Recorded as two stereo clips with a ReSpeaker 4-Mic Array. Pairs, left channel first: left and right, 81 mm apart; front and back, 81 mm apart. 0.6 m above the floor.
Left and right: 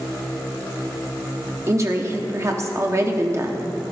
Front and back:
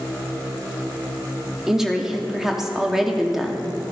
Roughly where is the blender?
No blender in this recording.